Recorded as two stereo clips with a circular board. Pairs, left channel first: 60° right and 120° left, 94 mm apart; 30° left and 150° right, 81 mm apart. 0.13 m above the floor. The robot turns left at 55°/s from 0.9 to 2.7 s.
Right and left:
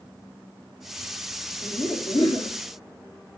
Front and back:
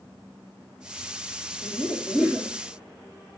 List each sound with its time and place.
1.6 s laughter: 35° right, 3 m; by 2.6 s 85° right, 3 m